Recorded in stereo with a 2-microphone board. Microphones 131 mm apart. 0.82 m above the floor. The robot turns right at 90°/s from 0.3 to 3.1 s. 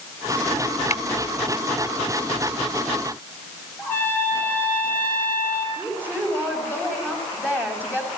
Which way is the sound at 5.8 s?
10° left (ahead or behind).